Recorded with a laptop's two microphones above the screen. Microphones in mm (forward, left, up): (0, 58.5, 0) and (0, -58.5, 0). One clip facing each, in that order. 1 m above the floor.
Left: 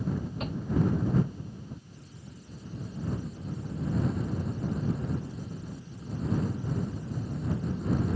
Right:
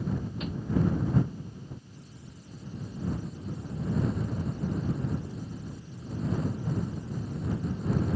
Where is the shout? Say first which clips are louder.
Left 1 dB; 45° left (ahead or behind).